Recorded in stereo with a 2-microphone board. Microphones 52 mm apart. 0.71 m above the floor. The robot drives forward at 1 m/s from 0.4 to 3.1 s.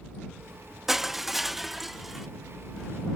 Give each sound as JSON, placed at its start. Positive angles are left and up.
{"t": 0.9, "sound": "crushing", "side_deg": -5}